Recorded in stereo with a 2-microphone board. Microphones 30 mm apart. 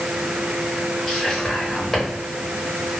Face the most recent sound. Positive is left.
turn(degrees=0)  # may be behind; listen again after turning